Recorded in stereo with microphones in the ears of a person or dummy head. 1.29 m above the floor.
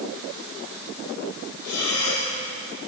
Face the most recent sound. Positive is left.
turn(degrees=80)